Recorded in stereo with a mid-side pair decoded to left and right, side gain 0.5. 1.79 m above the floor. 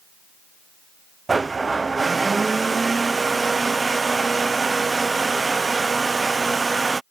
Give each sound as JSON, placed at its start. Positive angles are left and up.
{"t": 1.3, "sound": "a blender", "azimuth_deg": -25}